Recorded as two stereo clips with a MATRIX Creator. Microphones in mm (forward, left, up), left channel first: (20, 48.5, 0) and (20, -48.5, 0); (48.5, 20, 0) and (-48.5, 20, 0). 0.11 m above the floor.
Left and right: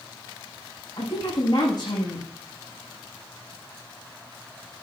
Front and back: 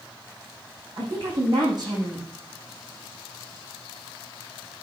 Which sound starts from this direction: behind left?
A woman speaking, at 1.0 s.